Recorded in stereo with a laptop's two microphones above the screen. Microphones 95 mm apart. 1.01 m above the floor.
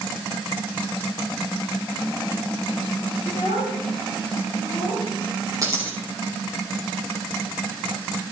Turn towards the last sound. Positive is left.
turn(degrees=-35)  # may be behind; listen again after turning